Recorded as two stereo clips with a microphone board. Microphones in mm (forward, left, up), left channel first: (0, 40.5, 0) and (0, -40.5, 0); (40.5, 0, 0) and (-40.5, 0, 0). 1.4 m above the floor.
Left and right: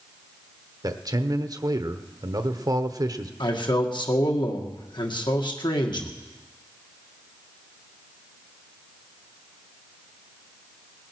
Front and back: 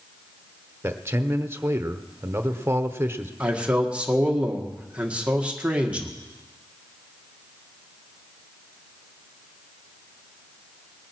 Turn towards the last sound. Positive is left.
turn(degrees=105)